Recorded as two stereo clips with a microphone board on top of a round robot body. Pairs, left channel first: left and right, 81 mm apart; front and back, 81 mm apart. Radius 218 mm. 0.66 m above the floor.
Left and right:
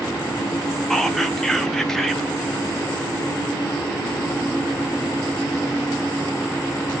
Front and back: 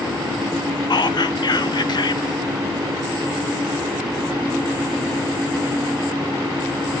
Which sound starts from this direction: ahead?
Whispering, at 0.9 s.